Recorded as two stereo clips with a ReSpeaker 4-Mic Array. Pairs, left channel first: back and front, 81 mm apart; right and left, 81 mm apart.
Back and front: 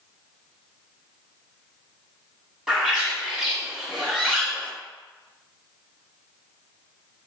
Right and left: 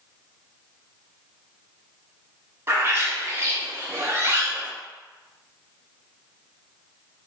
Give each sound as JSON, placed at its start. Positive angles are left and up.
{"t": 2.7, "sound": "a bird", "azimuth_deg": 75, "distance_m": 0.6}